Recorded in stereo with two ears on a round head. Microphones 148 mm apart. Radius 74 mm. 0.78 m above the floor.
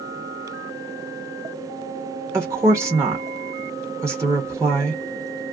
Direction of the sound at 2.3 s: 15° right (ahead or behind).